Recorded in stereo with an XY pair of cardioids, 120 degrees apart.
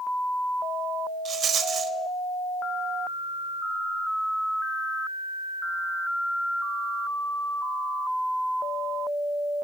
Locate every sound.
1.2 s a rattle: 45° right, 0.6 m